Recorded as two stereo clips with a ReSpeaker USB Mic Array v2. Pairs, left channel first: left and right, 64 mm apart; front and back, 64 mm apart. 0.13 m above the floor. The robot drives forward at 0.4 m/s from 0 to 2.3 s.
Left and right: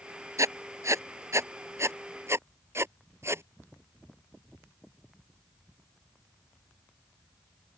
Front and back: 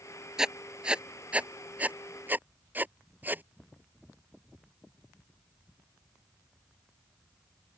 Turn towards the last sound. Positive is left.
turn(degrees=-125)